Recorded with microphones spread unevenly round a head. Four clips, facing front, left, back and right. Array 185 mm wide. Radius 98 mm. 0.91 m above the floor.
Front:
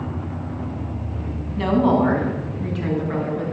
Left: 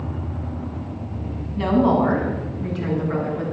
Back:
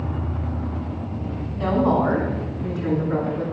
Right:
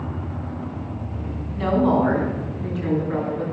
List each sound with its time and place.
1.6 s a woman speaking: 30° left, 7 m; by 3.5 s 25° left, 8.5 m